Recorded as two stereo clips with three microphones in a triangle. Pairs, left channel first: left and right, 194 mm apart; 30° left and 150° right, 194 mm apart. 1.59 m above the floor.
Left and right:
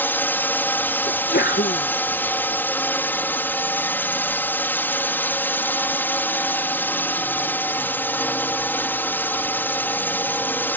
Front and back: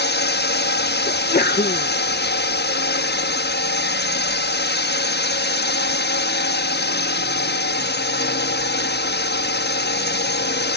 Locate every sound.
0.0 s a drone: 10° left
1.1 s a sneeze: 65° left